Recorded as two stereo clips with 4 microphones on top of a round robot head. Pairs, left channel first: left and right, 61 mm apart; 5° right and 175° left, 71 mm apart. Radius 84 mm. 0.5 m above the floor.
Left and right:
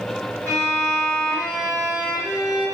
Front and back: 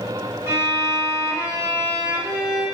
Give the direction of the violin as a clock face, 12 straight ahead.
7 o'clock.